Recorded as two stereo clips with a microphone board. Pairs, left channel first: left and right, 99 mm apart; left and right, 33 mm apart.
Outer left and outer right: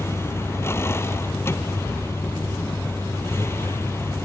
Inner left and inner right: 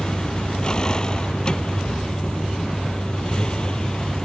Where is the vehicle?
25° left (ahead or behind).